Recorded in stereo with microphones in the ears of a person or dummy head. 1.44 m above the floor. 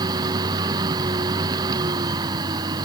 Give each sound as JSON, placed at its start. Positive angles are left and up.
{"t": 0.0, "sound": "a machine running", "side_deg": -20}